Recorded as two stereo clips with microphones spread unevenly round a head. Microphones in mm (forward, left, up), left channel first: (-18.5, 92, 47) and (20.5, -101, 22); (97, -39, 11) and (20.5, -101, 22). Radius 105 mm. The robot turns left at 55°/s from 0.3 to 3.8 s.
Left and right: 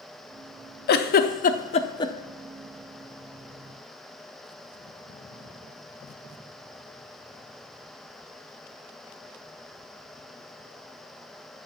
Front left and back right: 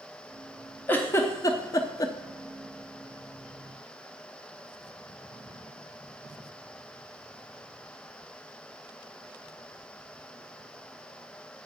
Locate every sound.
0.9 s a giggle: 100° left, 0.6 m; by 2.1 s 30° left, 0.6 m